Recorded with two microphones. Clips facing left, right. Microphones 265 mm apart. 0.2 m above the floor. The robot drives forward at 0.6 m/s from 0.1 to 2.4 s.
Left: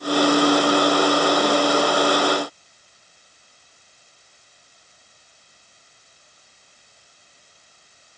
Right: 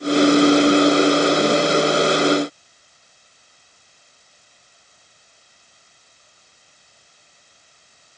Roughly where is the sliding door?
No sliding door in this recording.